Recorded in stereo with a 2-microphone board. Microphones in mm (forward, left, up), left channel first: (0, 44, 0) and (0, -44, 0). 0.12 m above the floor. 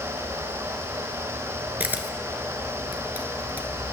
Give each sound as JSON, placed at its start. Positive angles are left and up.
{"t": 1.8, "sound": "a camera shutter", "side_deg": -20, "distance_m": 1.3}